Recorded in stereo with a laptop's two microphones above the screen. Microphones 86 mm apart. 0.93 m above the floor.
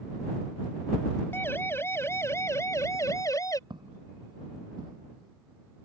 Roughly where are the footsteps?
Right.